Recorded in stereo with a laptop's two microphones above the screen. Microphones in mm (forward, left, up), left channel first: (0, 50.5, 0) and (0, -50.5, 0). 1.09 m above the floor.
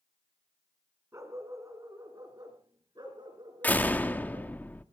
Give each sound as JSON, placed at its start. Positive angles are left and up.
{"t": 1.1, "sound": "a dog barking", "side_deg": -30, "distance_m": 2.5}
{"t": 3.6, "sound": "a door slam", "side_deg": 15, "distance_m": 1.2}